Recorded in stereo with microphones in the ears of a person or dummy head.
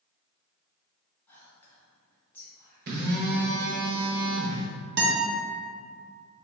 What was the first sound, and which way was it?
Whispering, 15° left (ahead or behind).